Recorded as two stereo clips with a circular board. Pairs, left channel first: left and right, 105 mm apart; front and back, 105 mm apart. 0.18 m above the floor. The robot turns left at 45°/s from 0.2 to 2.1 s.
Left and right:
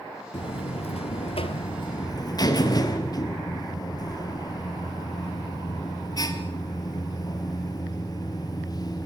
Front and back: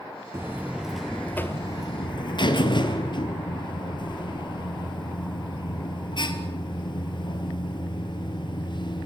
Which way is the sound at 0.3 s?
120° left.